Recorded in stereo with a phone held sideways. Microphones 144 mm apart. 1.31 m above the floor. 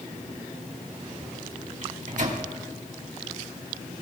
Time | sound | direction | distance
1.8 | a microwave | 60° right (ahead or behind) | 1.8 m